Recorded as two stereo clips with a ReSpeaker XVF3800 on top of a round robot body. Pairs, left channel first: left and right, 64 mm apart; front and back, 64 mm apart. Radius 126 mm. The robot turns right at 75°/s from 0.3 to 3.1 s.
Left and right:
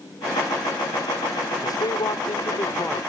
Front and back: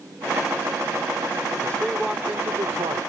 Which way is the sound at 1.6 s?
65° left.